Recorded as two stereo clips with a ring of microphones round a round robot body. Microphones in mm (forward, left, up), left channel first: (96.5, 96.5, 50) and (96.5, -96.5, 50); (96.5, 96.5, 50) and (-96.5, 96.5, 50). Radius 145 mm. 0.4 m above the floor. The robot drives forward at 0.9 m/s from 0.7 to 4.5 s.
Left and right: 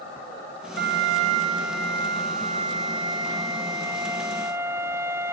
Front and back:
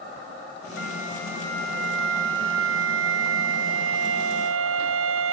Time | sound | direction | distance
0.8 | a flute | 45° right | ?